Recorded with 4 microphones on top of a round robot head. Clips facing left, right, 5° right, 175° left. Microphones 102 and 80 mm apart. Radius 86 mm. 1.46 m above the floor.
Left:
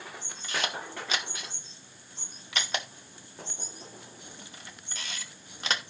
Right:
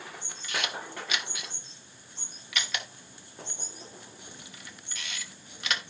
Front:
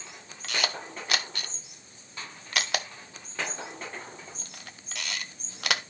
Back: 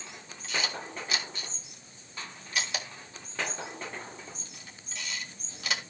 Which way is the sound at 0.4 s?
25° left.